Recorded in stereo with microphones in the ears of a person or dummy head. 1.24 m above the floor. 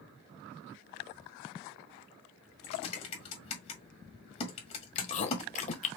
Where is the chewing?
40° left (ahead or behind), 0.8 m.